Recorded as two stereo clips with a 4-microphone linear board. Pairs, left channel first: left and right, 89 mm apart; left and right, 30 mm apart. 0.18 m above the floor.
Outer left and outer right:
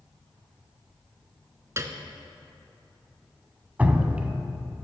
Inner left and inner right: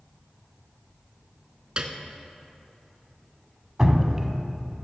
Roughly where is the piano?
Right.